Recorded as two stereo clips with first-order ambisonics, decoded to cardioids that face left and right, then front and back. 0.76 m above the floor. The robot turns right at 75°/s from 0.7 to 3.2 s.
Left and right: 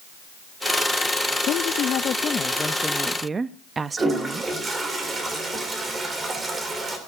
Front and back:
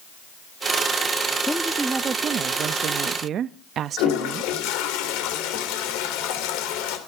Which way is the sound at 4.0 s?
15° right.